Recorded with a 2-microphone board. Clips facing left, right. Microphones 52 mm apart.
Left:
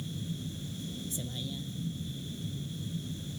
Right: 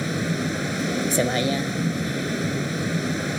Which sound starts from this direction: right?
A vehicle, at 0.0 s.